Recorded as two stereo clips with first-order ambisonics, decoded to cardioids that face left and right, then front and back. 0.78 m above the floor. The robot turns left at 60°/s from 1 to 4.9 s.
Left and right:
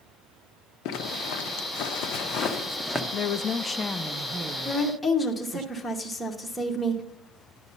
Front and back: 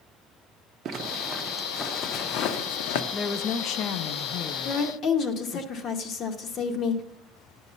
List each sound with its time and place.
0.8 s a zipper: 125° left, 0.8 m; by 3.0 s straight ahead, 0.8 m
3.1 s a woman speaking: 55° left, 0.5 m; by 5.7 s 55° right, 0.5 m
4.7 s a woman speaking: 15° left, 1.1 m; by 7.0 s straight ahead, 1.1 m